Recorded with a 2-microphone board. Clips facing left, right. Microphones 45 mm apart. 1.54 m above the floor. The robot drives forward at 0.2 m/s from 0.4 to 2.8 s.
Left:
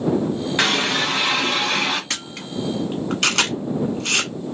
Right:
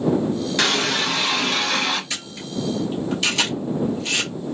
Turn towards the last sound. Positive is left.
turn(degrees=65)  # may be behind; listen again after turning